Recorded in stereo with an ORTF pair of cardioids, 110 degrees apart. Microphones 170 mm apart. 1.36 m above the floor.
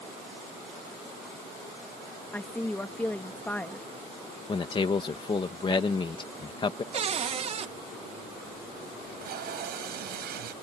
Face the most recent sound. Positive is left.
turn(degrees=-60)